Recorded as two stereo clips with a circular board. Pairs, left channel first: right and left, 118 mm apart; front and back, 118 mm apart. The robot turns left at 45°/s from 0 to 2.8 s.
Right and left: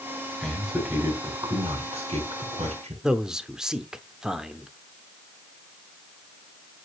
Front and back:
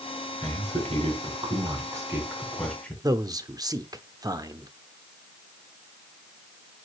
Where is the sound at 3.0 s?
170° left, 0.9 m.